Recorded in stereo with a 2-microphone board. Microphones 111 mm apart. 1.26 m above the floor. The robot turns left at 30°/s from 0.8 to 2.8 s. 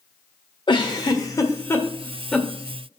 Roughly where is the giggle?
Left.